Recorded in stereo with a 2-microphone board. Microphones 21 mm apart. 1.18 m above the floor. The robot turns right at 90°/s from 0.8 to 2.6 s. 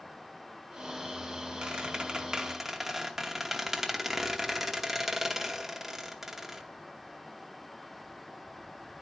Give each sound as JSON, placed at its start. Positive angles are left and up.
{"t": 1.6, "sound": "a squeak", "azimuth_deg": -105, "distance_m": 0.9}